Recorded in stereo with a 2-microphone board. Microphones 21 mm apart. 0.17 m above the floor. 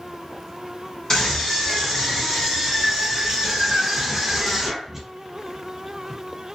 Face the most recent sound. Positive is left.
turn(degrees=-5)  # may be behind; listen again after turning